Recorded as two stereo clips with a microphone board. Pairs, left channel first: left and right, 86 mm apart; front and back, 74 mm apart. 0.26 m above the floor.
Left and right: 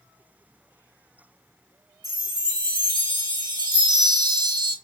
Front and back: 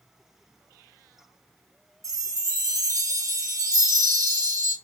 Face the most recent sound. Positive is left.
turn(degrees=-135)